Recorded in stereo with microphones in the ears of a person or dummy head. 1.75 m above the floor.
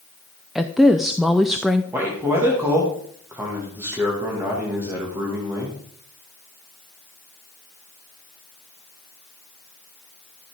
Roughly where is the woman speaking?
Centre.